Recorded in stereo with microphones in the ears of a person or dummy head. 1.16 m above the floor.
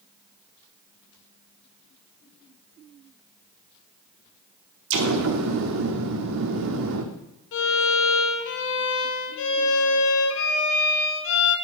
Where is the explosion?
65° right (ahead or behind), 1.2 m.